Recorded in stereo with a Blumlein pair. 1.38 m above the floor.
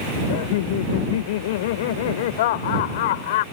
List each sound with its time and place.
0.3 s laughter: 55° left